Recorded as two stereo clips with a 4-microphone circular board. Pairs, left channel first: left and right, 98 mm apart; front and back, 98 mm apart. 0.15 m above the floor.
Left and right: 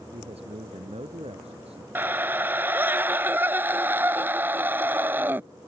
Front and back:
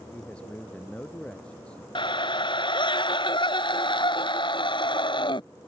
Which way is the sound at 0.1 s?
80° right.